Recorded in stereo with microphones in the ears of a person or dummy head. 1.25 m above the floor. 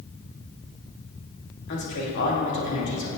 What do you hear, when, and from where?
1.7 s a man speaking: 60° left (ahead or behind), 2.5 m